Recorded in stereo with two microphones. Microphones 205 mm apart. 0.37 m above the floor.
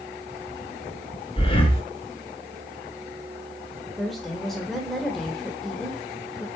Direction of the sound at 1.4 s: 25° left (ahead or behind).